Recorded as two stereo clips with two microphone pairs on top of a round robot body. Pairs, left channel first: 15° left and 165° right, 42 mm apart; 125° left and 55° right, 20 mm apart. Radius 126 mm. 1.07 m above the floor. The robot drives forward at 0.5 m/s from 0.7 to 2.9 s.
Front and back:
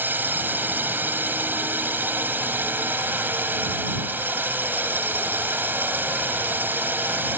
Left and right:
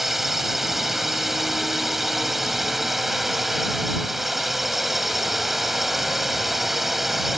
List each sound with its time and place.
0.0 s a drone: 130° right; by 7.4 s 135° right